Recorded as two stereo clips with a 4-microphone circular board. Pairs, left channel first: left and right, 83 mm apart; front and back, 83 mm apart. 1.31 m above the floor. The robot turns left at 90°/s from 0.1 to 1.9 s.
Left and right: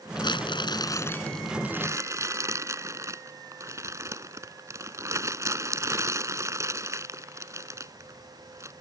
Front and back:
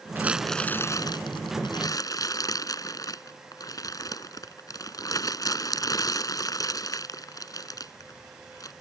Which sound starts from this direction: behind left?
Crumpling, at 0.1 s.